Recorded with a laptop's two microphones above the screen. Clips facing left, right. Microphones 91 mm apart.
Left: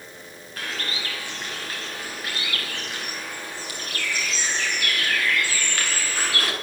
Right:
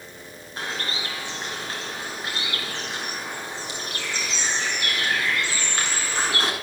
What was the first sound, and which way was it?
A bird, 25° right (ahead or behind).